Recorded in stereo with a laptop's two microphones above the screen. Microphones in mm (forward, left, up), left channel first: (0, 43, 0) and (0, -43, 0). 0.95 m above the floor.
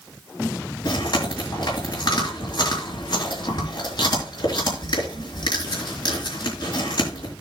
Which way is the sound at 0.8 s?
55° left (ahead or behind).